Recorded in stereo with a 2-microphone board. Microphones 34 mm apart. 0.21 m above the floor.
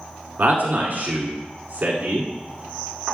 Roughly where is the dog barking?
I don't hear a dog barking.